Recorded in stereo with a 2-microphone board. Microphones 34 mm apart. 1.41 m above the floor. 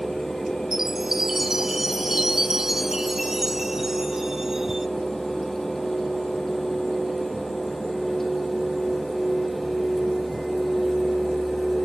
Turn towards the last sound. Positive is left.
turn(degrees=-15)  # may be behind; listen again after turning